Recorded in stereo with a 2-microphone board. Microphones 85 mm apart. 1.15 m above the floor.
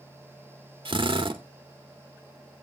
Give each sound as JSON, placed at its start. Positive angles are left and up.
{"t": 0.8, "sound": "a drill", "side_deg": -75, "distance_m": 1.5}